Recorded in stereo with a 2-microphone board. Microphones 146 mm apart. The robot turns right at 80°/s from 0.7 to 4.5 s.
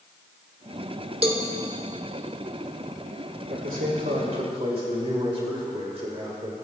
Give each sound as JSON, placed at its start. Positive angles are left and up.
{"t": 1.2, "sound": "a cowbell", "side_deg": -40, "distance_m": 1.3}
{"t": 3.5, "sound": "a man speaking", "azimuth_deg": -120, "distance_m": 3.5}